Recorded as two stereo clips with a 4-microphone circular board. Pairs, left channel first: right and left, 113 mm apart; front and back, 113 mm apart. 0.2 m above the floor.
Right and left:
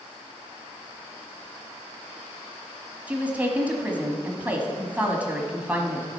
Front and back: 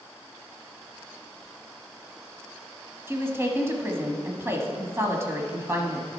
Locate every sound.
3.1 s a woman speaking: 150° left, 1.2 m